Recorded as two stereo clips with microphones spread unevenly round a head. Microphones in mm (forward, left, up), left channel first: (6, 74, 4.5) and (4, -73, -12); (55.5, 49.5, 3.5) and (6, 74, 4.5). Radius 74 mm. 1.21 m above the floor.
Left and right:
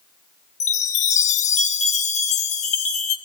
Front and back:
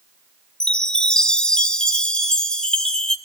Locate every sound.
0.6 s a chime: 50° left, 1.6 m